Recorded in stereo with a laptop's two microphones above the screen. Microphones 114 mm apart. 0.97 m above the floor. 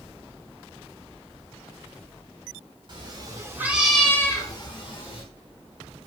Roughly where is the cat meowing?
Right.